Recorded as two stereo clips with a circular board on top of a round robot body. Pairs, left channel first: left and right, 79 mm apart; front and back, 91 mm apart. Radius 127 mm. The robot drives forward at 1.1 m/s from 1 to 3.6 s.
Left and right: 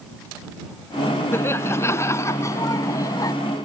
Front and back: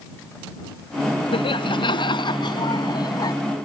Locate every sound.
1.3 s laughter: 30° left; by 3.3 s 45° left